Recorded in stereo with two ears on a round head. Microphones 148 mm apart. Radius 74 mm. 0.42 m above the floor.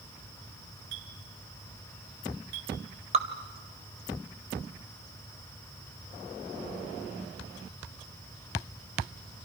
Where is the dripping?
40° right (ahead or behind), 2 m.